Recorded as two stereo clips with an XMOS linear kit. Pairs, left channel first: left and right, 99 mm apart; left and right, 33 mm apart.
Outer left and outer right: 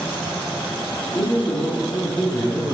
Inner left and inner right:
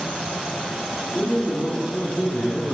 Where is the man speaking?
20° left (ahead or behind), 1.6 m; by 2.7 s 5° left (ahead or behind), 1.8 m.